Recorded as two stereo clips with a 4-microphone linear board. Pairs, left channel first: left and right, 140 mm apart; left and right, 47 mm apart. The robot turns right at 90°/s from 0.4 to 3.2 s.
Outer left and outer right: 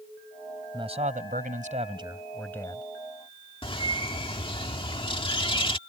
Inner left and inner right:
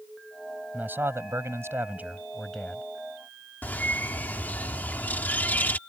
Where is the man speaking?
150° right; by 2.8 s 40° left.